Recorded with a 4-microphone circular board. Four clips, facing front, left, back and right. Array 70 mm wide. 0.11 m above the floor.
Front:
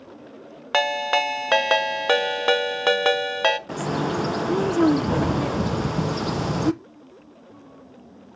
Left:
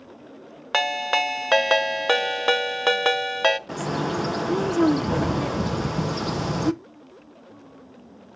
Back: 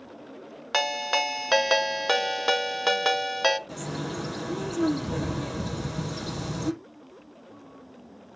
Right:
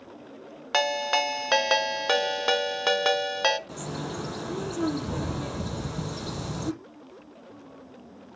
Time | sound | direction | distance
0.7 | a ringtone | 45° left | 0.6 m
3.7 | a bird | 40° left | 0.5 m